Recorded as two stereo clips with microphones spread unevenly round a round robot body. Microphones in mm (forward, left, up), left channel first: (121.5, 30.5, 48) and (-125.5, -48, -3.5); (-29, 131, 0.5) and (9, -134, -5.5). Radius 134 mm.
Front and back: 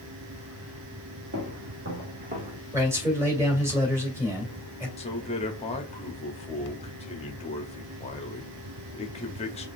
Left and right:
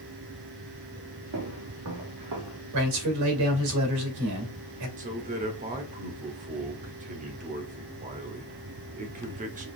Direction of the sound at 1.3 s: 115° right.